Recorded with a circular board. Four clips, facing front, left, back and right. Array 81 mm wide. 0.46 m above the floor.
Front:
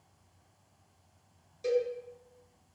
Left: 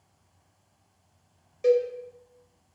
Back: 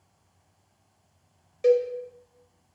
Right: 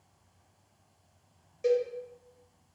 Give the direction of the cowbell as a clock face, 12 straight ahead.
6 o'clock.